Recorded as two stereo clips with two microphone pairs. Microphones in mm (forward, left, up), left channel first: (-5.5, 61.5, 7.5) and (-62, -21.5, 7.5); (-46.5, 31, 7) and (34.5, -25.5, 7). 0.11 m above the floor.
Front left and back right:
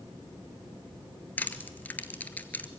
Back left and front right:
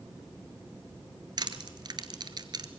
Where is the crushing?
10° right, 1.0 m.